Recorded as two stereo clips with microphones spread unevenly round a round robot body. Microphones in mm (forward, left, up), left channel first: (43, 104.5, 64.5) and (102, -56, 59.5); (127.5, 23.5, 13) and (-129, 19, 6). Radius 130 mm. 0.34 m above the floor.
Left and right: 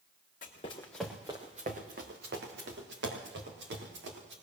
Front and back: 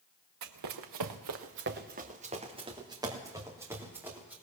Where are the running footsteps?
165° left, 1.5 m; by 4.3 s 95° right, 5 m.